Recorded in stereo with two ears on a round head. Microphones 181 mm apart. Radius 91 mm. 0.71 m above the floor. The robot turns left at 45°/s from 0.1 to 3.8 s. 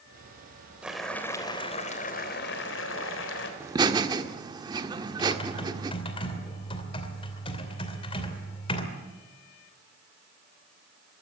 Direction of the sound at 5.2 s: 30° left (ahead or behind).